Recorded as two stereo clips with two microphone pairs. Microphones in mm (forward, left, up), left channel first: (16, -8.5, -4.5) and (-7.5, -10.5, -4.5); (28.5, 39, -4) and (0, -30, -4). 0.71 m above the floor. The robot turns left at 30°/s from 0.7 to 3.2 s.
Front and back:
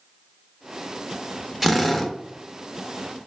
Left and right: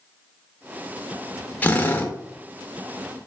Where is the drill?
85° left, 0.6 m; by 2.1 s 70° left, 0.6 m.